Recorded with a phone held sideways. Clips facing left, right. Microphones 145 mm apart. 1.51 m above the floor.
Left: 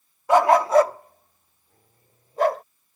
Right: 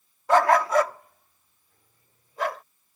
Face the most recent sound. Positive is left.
turn(degrees=45)  # may be behind; listen again after turning